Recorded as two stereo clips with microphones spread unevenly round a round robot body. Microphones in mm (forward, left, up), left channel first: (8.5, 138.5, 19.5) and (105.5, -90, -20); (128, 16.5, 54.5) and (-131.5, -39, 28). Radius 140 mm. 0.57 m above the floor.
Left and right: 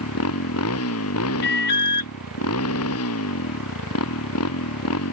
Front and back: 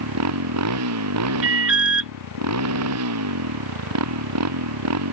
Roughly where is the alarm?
Behind.